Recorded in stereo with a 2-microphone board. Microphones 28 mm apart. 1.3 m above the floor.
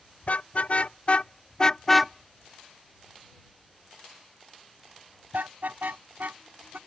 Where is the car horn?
60° left (ahead or behind); by 6.8 s 80° right.